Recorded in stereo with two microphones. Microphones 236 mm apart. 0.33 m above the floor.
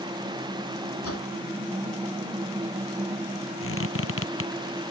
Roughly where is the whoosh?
Left.